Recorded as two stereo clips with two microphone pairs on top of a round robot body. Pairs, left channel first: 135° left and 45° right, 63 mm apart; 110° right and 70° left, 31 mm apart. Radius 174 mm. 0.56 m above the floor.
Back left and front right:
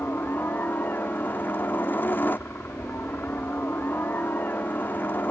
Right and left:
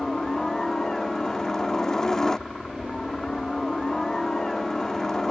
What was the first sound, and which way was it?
A helicopter, straight behind.